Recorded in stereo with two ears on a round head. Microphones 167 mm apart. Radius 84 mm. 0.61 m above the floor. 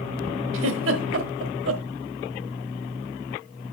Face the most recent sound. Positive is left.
turn(degrees=-70)  # may be behind; listen again after turning